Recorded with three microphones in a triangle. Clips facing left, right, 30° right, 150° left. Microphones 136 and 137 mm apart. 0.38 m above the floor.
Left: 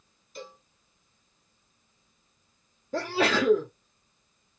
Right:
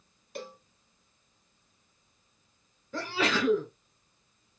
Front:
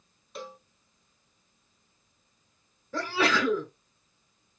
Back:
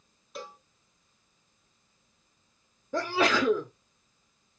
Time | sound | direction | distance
0.3 | a cowbell | 120° right | 1.1 m
2.9 | a sneeze | 95° left | 1.2 m